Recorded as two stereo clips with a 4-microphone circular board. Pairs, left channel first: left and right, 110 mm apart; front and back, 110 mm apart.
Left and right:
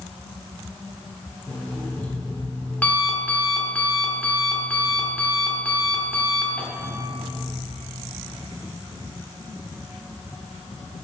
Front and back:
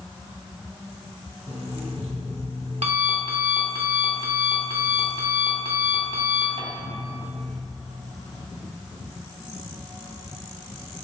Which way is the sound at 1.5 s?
165° left.